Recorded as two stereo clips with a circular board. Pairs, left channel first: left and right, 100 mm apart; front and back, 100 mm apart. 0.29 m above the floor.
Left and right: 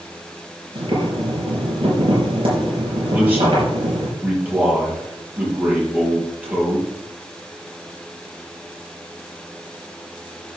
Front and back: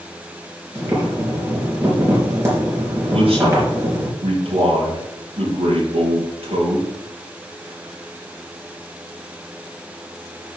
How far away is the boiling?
About 5 m.